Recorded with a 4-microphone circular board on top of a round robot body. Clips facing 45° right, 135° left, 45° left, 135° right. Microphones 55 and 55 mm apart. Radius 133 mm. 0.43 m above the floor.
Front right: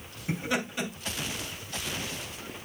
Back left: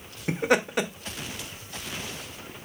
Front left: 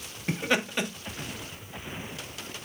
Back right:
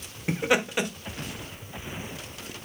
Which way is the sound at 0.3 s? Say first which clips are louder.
Back left 7 dB, back right 3 dB; 145° left.